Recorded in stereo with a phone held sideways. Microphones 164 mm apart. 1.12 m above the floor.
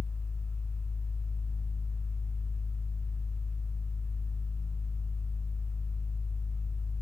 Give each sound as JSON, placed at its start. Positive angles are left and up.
{"t": 0.0, "sound": "a fan", "side_deg": 5, "distance_m": 1.6}